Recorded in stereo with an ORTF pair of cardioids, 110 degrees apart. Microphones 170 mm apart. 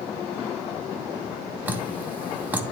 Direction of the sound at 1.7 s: 10° right.